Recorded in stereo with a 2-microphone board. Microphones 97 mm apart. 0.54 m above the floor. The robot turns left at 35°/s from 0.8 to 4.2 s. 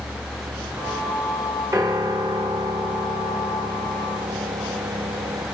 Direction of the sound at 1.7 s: 45° right.